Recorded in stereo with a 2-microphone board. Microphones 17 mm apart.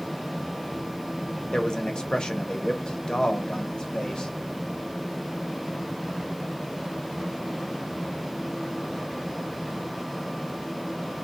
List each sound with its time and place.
1.5 s a man speaking: 50° left (ahead or behind), 0.9 m